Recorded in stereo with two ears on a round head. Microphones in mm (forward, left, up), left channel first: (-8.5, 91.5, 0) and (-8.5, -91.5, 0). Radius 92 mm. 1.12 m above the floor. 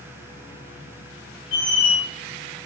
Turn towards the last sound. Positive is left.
turn(degrees=60)  # may be behind; listen again after turning